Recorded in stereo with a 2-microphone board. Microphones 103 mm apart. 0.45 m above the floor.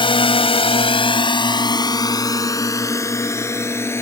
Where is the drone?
55° left (ahead or behind); by 4.0 s 25° left (ahead or behind).